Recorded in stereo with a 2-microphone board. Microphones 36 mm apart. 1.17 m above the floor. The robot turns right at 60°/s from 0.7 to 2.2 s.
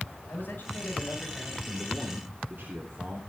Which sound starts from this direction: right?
A man speaking, at 1.7 s.